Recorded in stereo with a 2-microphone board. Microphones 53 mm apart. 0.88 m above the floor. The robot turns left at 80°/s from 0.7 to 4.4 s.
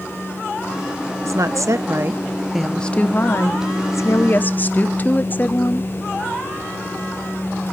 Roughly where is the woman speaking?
Right.